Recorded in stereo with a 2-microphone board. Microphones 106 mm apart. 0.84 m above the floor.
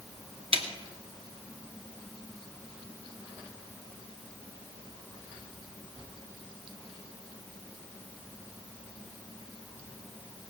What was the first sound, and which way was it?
A snare drum, 65° right (ahead or behind).